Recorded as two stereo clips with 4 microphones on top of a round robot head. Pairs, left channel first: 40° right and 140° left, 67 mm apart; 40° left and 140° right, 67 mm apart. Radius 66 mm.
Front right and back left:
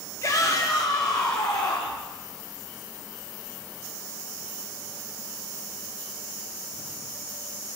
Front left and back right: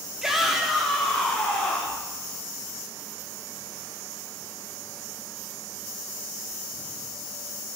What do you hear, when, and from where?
0.2 s a shout: 60° right, 1.1 m; by 2.0 s 35° right, 1.8 m